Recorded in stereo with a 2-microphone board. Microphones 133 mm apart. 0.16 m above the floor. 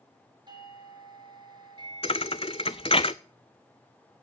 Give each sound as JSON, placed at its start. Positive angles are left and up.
{"t": 0.5, "sound": "a doorbell", "side_deg": -35, "distance_m": 3.0}
{"t": 2.0, "sound": "a thud", "side_deg": 40, "distance_m": 0.6}